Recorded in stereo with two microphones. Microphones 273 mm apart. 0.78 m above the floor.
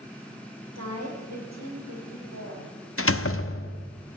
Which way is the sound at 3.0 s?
55° left (ahead or behind).